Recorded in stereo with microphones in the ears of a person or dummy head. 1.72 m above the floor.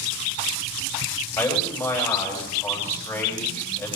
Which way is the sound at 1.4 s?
15° left (ahead or behind).